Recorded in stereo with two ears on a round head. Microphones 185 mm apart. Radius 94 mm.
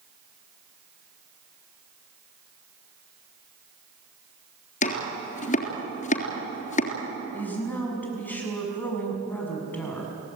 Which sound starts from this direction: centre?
A woman speaking, at 7.3 s.